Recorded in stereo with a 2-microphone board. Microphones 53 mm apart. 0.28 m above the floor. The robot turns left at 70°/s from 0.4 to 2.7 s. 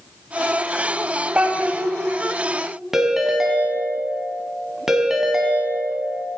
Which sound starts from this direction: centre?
A ringtone, at 2.9 s.